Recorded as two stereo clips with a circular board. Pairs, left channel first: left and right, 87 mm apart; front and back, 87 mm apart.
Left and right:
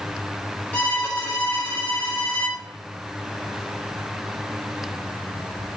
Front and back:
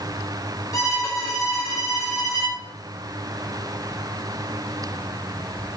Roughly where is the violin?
Ahead left.